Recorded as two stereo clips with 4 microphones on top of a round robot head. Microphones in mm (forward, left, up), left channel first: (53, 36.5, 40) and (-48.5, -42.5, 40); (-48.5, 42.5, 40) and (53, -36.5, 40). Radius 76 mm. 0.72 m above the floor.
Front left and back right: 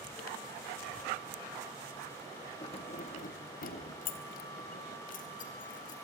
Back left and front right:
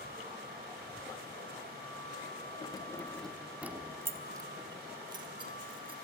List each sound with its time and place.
2.6 s keys jangling: 90° left, 0.8 m; by 6.0 s 15° left, 2.5 m